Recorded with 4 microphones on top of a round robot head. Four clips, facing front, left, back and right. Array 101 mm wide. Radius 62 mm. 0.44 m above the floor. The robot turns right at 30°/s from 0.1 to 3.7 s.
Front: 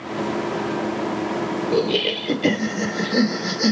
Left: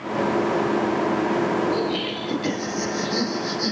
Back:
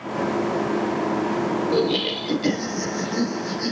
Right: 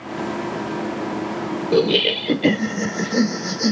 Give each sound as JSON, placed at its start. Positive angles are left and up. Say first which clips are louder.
{"t": 1.7, "sound": "laughter", "louder": "right 6 dB, front 1 dB", "azimuth_deg": -80, "distance_m": 1.7}